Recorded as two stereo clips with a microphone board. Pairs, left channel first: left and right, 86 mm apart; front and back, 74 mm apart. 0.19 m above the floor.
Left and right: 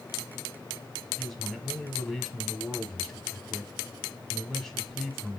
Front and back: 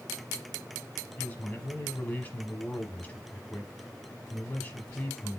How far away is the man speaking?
About 1.2 m.